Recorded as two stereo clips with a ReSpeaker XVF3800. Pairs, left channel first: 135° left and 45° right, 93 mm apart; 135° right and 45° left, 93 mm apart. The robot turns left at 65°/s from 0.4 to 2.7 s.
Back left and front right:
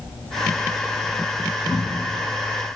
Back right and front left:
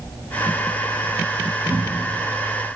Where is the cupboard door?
120° left, 1.4 m; by 2.2 s 90° left, 1.4 m.